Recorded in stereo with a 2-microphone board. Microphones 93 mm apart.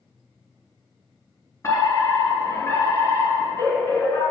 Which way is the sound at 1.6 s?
30° left (ahead or behind).